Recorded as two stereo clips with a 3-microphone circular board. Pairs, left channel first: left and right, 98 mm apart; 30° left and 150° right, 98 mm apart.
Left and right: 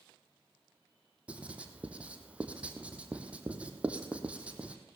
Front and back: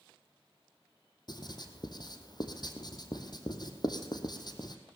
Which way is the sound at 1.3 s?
15° right.